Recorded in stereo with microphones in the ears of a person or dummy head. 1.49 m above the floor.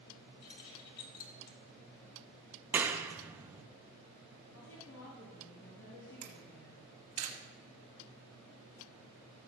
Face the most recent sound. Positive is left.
turn(degrees=-40)  # may be behind; listen again after turning